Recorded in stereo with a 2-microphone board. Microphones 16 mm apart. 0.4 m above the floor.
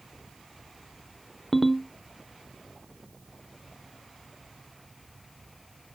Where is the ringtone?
20° left (ahead or behind), 0.5 m.